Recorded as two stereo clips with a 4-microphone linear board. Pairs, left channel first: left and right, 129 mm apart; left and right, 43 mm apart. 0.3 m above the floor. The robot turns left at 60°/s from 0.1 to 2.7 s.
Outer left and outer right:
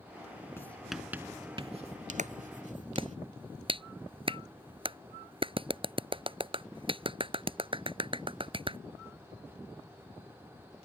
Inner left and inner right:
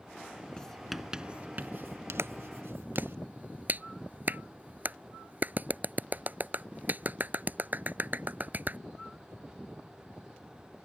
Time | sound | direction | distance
0.6 | writing | 20° left (ahead or behind) | ?
2.2 | a clap | 70° right (ahead or behind) | ?